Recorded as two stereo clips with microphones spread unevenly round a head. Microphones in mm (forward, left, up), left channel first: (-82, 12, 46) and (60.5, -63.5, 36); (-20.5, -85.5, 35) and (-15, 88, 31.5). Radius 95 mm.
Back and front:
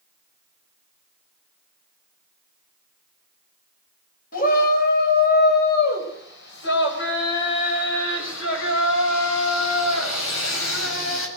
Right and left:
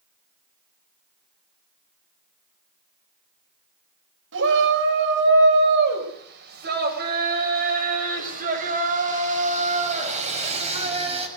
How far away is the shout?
About 5.5 m.